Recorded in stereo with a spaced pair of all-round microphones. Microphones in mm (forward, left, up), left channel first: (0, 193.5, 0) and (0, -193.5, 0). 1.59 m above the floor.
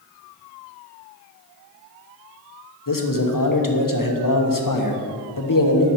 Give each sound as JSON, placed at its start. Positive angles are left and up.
{"t": 2.9, "sound": "a man speaking", "side_deg": 55, "distance_m": 1.0}